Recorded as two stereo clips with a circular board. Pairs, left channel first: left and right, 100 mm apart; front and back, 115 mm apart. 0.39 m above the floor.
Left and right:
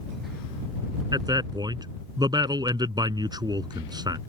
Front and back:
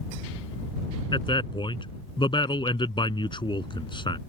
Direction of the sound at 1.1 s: 45° right.